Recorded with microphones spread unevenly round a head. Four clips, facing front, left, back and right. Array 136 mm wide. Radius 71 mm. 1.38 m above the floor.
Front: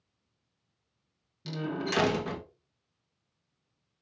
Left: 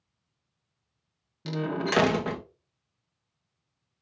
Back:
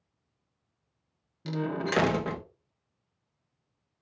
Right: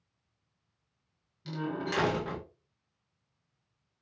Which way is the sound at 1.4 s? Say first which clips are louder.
Left 5 dB, back 3 dB; 110° left.